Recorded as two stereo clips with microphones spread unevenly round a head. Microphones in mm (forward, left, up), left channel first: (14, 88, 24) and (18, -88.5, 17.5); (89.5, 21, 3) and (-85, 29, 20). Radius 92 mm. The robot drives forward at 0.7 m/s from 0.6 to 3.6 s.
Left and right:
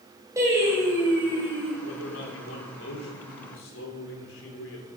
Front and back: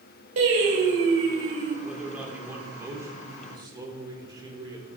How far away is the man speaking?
About 3.5 m.